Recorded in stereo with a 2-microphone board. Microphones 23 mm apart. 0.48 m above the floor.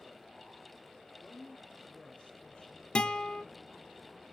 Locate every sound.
1.2 s a woman speaking: 45° left (ahead or behind), 1.1 m
3.0 s a guitar: 45° left (ahead or behind), 0.5 m